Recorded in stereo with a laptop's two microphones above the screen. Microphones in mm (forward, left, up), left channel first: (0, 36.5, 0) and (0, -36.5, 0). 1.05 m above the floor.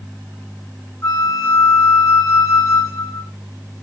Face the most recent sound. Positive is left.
turn(degrees=35)  # may be behind; listen again after turning